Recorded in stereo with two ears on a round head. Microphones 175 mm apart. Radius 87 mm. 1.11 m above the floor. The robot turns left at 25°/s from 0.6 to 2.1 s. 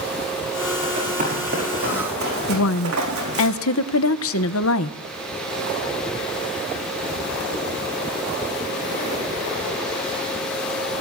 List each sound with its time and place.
0.8 s running footsteps: 30° right (ahead or behind), 5.5 m; by 3.5 s 75° right (ahead or behind), 5.5 m
2.5 s a woman speaking: 70° left (ahead or behind), 0.5 m